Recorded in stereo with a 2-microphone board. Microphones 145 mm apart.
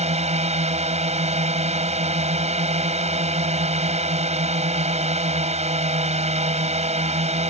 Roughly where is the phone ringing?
No phone ringing in this recording.